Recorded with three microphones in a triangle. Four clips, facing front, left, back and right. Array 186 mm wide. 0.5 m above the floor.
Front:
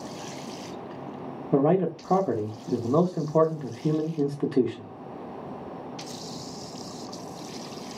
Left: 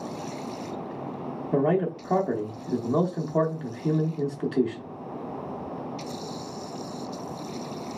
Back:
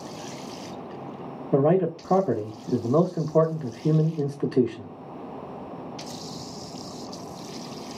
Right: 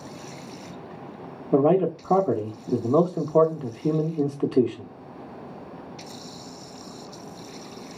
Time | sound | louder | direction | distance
1.5 | a man speaking | right 5 dB, back 1 dB | 80° right | 0.7 m